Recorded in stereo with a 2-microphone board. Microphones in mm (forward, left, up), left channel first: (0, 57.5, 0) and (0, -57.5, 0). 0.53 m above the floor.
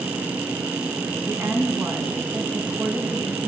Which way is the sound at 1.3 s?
20° right (ahead or behind).